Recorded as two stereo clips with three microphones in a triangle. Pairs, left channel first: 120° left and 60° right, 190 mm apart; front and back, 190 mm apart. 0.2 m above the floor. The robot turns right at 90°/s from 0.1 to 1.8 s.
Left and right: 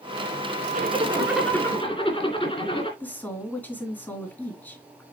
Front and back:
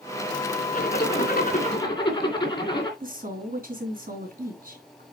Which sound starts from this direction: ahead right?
A zipper, at 0.7 s.